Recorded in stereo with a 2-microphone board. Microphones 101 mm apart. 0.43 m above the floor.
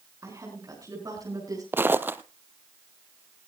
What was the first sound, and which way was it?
A woman speaking, 35° right (ahead or behind).